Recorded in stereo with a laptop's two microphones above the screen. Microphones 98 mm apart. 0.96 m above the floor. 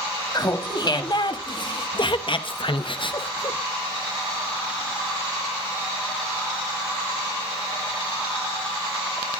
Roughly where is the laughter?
Left.